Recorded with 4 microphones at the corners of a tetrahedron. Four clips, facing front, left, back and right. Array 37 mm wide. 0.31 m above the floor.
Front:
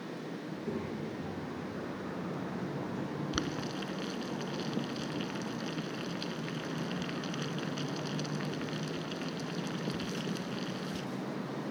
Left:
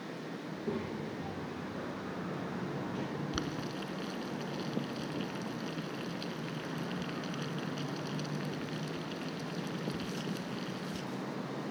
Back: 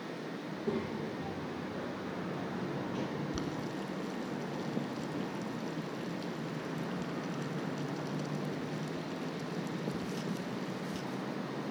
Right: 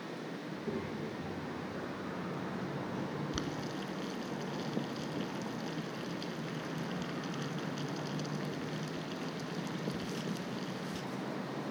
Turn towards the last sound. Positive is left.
turn(degrees=20)